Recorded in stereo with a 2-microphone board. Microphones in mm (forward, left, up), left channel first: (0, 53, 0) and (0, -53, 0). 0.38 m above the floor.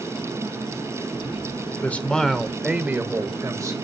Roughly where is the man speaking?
Centre.